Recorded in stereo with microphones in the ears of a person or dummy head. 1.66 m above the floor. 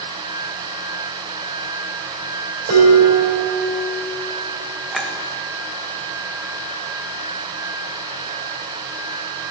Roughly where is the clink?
Centre.